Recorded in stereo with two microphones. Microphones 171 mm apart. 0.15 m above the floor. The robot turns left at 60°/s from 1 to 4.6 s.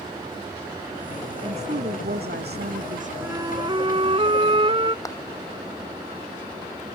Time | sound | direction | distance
1.4 | a woman speaking | 30° right | ?
3.2 | a flute | 25° right | ?
5.0 | a clap | 20° left (ahead or behind) | ?